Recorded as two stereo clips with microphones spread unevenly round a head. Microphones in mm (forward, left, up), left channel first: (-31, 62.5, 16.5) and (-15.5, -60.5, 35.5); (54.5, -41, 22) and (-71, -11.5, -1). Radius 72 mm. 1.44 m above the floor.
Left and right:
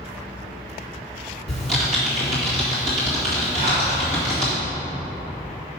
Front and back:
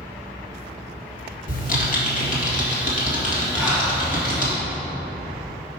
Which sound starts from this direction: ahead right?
Typing on a keyboard, at 1.5 s.